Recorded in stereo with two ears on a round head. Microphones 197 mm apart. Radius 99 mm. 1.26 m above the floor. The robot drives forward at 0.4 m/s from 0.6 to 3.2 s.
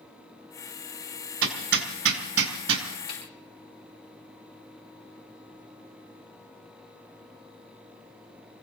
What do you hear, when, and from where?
1.4 s hammering: 60° right (ahead or behind), 3 m; by 2.9 s 65° right (ahead or behind), 2.5 m
3.1 s a snare drum: 25° left (ahead or behind), 6.5 m